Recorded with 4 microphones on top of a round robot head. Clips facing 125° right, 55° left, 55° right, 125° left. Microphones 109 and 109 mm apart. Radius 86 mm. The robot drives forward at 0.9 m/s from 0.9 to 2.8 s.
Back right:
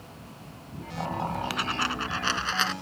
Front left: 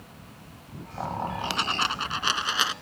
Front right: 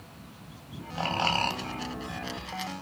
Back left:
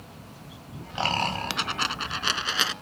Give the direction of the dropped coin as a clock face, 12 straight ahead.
8 o'clock.